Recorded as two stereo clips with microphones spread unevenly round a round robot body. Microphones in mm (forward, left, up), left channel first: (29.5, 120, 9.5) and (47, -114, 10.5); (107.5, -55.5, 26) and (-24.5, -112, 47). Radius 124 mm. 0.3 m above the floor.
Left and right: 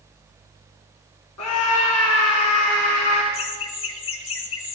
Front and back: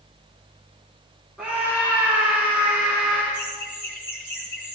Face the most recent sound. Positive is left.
turn(degrees=95)